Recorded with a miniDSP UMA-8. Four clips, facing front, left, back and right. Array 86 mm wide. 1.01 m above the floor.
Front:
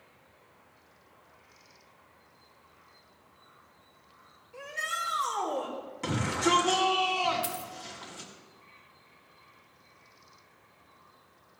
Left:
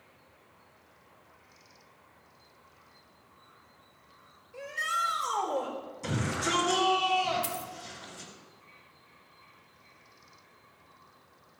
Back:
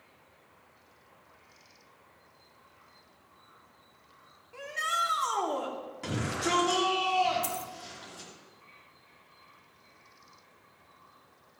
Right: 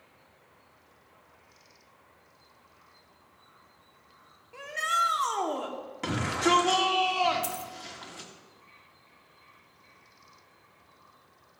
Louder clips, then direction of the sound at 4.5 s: Right 4 dB, back 4 dB; 115° right.